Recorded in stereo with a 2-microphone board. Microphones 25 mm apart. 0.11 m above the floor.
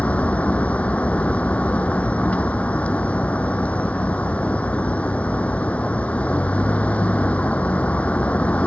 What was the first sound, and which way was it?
A vehicle, 70° left (ahead or behind).